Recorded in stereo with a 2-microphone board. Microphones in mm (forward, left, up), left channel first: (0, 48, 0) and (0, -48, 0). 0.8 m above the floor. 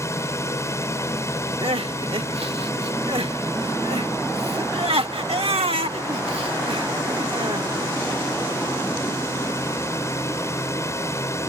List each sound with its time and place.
0.0 s a drone: 30° left (ahead or behind)
1.6 s crying: 80° right